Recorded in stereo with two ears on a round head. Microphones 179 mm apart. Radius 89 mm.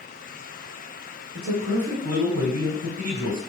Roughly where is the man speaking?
Right.